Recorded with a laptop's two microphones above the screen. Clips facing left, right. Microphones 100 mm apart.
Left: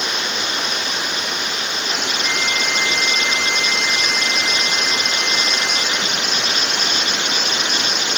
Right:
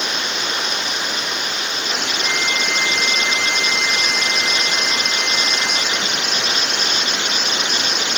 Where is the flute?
60° right (ahead or behind).